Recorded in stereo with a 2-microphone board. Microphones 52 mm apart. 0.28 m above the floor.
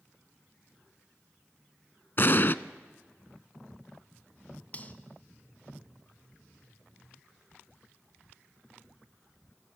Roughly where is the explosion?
Left.